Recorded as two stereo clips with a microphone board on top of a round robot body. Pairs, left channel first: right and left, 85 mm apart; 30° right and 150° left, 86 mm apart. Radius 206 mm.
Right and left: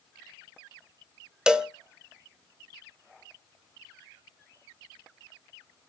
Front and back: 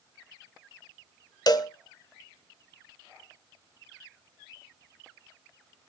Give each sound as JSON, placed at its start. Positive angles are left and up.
{"t": 1.5, "sound": "a cowbell", "azimuth_deg": 10, "distance_m": 1.2}